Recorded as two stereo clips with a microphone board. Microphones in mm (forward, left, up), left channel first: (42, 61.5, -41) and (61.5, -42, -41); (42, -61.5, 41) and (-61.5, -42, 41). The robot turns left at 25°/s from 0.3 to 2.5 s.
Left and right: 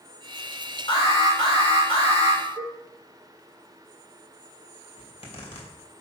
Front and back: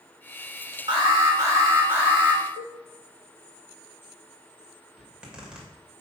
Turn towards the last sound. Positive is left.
turn(degrees=90)